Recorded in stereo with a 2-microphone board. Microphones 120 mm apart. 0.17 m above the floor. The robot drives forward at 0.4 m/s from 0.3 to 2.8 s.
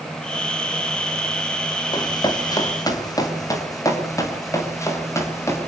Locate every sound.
1.9 s running footsteps: 35° left (ahead or behind), 5.5 m; by 5.7 s 25° left (ahead or behind), 9.5 m